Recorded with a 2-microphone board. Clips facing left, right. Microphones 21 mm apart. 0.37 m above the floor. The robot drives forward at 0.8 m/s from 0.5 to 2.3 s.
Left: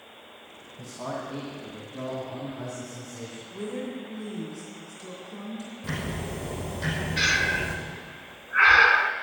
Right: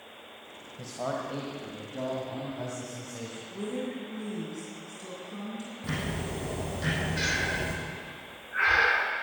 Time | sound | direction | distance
0.8 | a man speaking | 45° right (ahead or behind) | 1.8 m
3.5 | a woman speaking | 15° right (ahead or behind) | 3 m
5.8 | ticking | 10° right (ahead or behind) | 5 m
7.2 | breathing | 30° left (ahead or behind) | 0.7 m